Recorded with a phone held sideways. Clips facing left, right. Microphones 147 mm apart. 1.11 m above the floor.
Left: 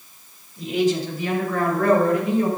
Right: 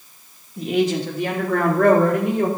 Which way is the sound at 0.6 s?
70° right (ahead or behind).